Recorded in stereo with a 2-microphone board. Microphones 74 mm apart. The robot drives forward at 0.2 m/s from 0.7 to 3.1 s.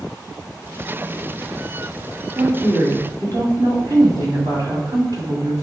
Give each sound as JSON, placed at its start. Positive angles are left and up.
{"t": 2.4, "sound": "a woman speaking", "side_deg": -65, "distance_m": 2.0}